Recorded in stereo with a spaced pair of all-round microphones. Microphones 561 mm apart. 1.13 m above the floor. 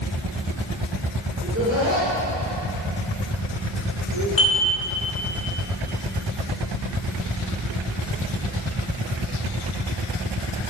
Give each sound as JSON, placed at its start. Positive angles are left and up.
{"t": 1.4, "sound": "laughter", "side_deg": -20, "distance_m": 3.0}
{"t": 4.4, "sound": "dishes clattering", "side_deg": 80, "distance_m": 3.0}